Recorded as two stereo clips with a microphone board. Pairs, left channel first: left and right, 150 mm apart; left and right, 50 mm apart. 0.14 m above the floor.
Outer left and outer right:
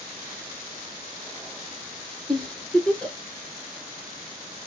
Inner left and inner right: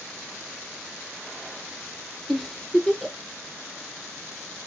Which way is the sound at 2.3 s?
5° left (ahead or behind).